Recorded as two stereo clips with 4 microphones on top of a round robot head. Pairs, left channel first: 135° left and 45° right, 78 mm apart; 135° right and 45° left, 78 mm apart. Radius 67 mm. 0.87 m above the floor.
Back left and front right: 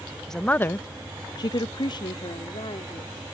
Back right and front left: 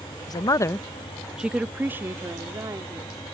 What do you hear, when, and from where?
0.3 s a woman speaking: 140° right; by 3.2 s 95° left